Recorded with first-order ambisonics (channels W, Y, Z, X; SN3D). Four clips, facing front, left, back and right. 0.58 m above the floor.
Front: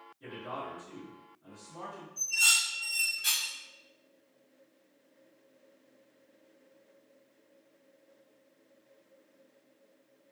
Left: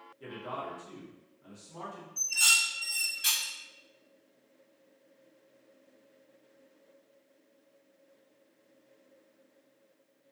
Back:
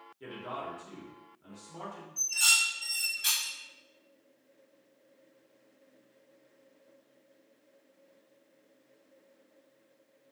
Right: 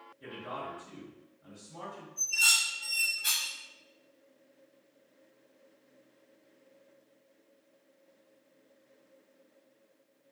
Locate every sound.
0.2 s a man speaking: 145° left, 1.1 m
2.2 s dishes clattering: 110° left, 0.6 m